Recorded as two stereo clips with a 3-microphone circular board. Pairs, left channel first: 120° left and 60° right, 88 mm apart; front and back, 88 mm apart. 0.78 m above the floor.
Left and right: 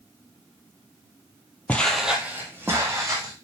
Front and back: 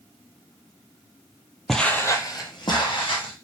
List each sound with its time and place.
1.7 s footsteps: 85° left, 0.8 m; by 3.3 s 5° right, 2 m